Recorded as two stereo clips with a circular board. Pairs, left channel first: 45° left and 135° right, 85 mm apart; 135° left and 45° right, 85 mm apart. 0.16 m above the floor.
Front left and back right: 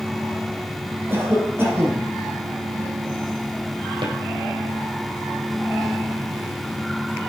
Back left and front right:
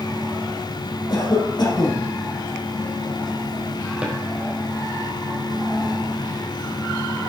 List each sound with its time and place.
1.1 s a cough: 165° left, 5.5 m
4.0 s a drawer: 120° right, 3 m